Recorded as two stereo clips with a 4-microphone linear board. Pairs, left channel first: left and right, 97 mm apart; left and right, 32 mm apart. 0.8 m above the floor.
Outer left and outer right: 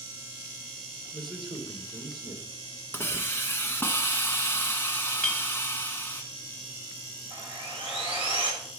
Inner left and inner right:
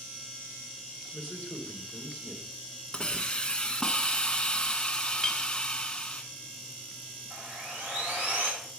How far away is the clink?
About 1.1 m.